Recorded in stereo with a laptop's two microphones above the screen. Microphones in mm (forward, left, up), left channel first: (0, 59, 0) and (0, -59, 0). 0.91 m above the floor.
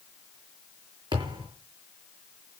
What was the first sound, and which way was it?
A thud, 45° right (ahead or behind).